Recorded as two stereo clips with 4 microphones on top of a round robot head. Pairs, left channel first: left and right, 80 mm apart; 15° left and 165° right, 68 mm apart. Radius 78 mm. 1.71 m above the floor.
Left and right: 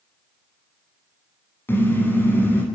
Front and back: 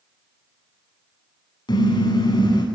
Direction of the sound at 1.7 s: 25° left.